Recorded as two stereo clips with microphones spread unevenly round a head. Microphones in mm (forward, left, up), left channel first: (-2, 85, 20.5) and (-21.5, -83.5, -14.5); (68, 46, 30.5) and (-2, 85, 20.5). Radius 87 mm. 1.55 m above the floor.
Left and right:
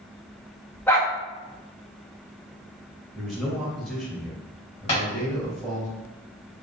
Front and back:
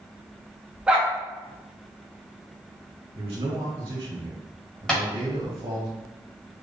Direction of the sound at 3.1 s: 175° left.